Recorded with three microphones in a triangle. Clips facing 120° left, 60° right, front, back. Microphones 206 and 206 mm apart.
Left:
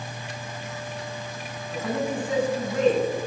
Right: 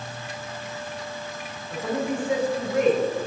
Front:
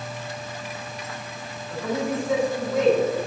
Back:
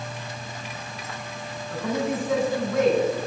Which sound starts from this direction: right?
A man speaking, at 1.7 s.